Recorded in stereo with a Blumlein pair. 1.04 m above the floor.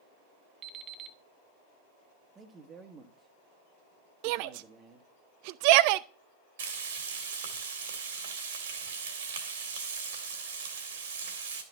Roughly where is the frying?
Ahead right.